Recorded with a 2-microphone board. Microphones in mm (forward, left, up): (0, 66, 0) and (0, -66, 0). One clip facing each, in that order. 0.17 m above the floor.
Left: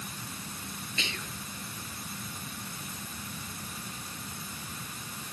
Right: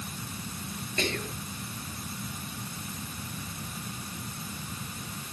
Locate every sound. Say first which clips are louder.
1.0 s whispering: right 10 dB; 50° right (ahead or behind)